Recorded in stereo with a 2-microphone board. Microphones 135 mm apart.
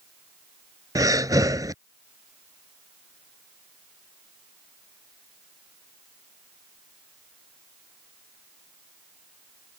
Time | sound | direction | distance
0.9 | breathing | 25° right (ahead or behind) | ?